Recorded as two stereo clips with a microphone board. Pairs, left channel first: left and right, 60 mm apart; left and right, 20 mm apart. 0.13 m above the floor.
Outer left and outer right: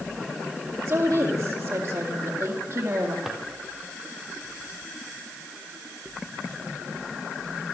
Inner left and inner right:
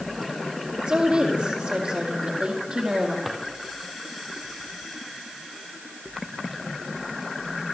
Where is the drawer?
10° right (ahead or behind), 3 m.